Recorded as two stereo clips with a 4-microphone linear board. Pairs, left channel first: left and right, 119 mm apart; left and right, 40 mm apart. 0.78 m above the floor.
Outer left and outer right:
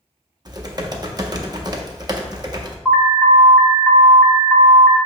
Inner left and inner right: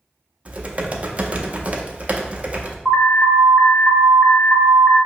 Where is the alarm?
5° left (ahead or behind), 1.1 m.